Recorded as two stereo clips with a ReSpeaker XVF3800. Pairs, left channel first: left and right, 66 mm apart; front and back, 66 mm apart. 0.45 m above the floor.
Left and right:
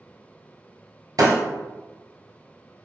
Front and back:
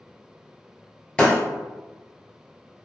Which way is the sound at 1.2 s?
80° right.